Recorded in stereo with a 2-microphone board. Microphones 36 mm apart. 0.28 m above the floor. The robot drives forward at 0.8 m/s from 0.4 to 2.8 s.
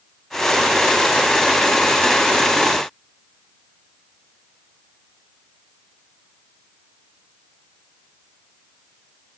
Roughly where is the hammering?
No hammering in this recording.